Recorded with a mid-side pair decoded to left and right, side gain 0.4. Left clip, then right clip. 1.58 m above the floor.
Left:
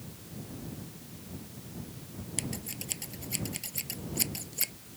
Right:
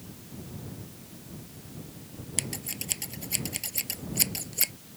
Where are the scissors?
35° right.